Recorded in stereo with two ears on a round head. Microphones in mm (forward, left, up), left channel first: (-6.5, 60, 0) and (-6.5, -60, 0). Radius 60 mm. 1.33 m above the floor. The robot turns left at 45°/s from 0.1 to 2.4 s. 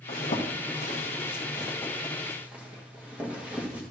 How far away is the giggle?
No giggle in this recording.